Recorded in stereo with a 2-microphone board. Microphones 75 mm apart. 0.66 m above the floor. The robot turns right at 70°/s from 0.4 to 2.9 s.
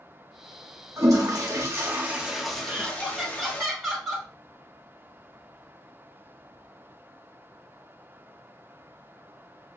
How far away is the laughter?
About 2.5 m.